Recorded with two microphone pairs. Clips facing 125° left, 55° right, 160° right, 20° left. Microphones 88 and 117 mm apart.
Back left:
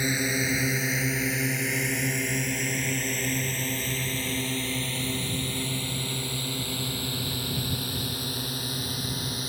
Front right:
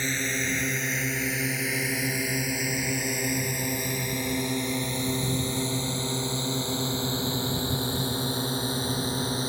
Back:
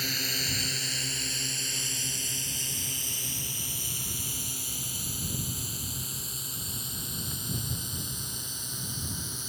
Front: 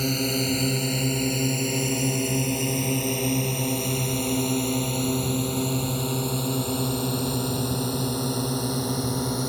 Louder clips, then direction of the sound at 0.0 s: Back left 2 dB, front 13 dB; 50° left.